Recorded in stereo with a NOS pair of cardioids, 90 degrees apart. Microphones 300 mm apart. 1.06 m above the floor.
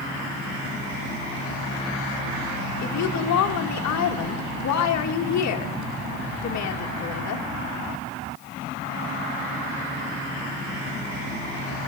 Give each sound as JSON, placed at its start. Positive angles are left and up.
{"t": 2.8, "sound": "a woman speaking", "azimuth_deg": 65, "distance_m": 1.1}